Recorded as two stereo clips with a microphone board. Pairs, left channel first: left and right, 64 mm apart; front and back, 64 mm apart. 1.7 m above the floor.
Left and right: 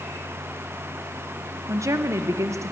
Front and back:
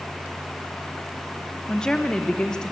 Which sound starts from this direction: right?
A woman speaking, at 1.7 s.